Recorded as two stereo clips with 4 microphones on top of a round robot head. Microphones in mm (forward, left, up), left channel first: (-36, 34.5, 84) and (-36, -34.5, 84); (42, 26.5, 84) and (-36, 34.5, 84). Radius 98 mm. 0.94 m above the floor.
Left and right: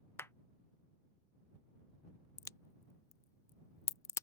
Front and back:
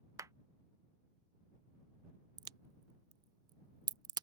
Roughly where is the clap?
Behind left.